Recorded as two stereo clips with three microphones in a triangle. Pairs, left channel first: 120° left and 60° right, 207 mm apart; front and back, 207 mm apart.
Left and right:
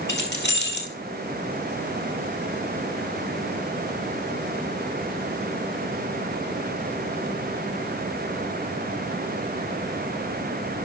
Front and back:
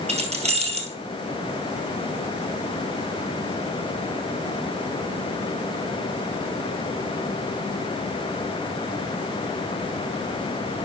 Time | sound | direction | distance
0.1 | keys jangling | 125° left | 1.9 m